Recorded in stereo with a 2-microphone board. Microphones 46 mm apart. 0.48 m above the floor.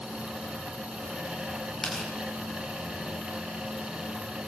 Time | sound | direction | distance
1.8 | tearing paper | centre (ahead or behind) | 8 m